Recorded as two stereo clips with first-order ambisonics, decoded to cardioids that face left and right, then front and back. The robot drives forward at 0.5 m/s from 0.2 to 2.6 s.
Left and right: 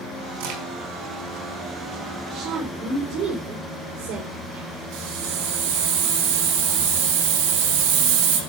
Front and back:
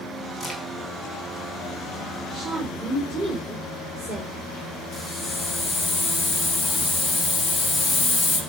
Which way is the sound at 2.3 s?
115° right.